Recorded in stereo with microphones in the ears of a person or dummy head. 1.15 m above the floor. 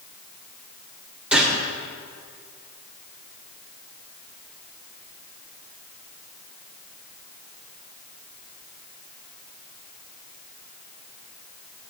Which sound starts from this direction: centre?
A gunshot, at 1.3 s.